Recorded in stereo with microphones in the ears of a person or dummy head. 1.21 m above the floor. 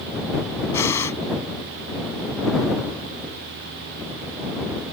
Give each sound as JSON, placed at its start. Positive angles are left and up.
{"t": 0.7, "sound": "breathing", "side_deg": 20}